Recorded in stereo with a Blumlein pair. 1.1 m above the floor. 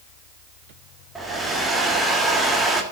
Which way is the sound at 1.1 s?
10° right.